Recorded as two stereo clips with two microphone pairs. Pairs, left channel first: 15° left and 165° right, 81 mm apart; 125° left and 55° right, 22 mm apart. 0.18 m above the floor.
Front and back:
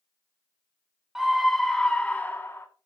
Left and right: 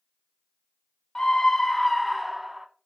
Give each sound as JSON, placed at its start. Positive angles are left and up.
{"t": 1.1, "sound": "a scream", "azimuth_deg": 110, "distance_m": 1.2}